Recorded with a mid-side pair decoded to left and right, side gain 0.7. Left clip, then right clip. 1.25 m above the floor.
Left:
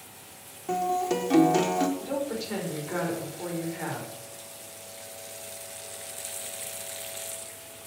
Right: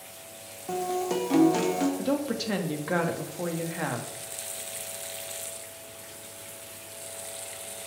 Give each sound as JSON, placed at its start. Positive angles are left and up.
{"t": 0.7, "sound": "a guitar", "azimuth_deg": 5, "distance_m": 1.7}
{"t": 2.0, "sound": "a woman speaking", "azimuth_deg": -60, "distance_m": 2.0}